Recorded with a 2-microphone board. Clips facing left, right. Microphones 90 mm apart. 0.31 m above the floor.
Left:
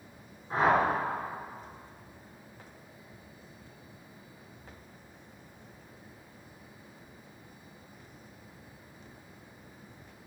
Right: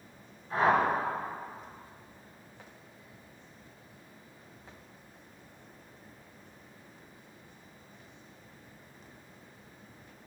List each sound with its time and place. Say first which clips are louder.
0.5 s a whoosh: even; 35° left (ahead or behind), 3.5 m